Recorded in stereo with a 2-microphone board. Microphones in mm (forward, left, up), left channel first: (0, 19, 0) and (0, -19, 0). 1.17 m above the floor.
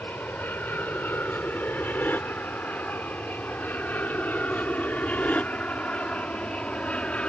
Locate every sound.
0.0 s an aircraft: 60° left (ahead or behind); by 7.3 s 35° left (ahead or behind)